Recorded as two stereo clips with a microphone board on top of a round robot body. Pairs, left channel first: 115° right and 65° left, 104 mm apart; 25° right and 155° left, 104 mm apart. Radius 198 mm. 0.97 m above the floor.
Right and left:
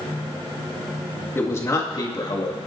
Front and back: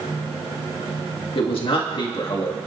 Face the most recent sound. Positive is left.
turn(degrees=-70)